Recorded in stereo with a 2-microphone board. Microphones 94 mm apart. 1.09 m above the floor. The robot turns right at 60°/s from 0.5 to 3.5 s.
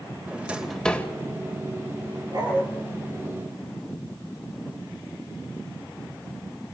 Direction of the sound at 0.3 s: 10° right (ahead or behind).